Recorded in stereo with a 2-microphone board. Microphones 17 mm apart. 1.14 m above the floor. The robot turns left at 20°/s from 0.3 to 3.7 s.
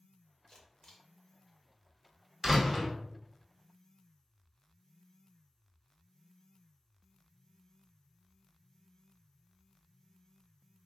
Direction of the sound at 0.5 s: 35° left (ahead or behind).